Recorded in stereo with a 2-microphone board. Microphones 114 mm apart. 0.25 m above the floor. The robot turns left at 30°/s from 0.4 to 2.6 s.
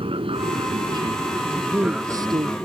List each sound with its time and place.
0.0 s an aircraft: 50° right (ahead or behind); by 2.7 s 15° left (ahead or behind)
1.5 s a man speaking: 10° right; by 2.6 s 45° right